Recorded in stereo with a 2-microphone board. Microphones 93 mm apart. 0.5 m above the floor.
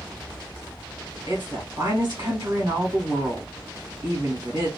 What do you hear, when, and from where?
1.3 s a woman speaking: 55° right (ahead or behind), 1.3 m